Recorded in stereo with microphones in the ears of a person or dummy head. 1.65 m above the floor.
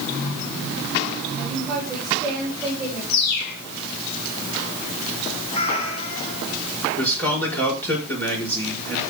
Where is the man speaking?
5° left (ahead or behind), 5 m.